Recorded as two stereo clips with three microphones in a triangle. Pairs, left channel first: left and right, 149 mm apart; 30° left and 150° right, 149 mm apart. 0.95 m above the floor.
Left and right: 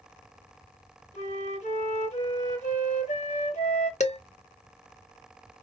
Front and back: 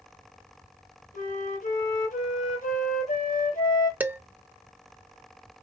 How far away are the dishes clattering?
About 0.8 m.